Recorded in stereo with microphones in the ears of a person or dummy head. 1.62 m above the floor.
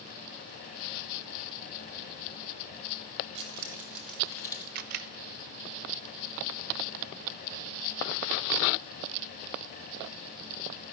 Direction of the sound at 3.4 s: 35° right (ahead or behind).